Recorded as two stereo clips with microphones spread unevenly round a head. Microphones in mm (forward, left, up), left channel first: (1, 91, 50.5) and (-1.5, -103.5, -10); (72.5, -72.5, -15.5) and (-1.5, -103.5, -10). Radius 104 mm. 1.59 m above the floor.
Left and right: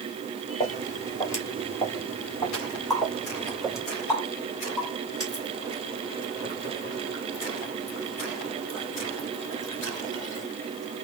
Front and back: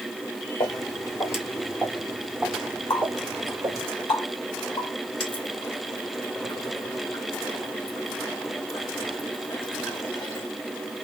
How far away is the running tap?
About 2.5 m.